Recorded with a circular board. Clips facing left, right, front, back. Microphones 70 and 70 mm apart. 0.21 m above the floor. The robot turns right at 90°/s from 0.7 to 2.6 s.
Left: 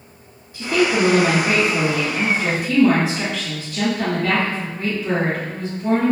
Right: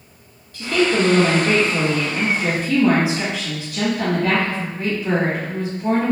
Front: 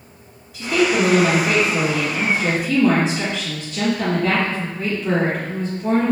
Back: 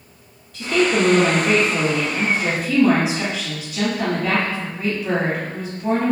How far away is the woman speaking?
About 1.0 m.